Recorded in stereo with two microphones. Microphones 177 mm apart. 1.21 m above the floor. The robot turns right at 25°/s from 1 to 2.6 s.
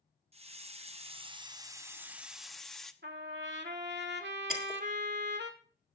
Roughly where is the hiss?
Ahead right.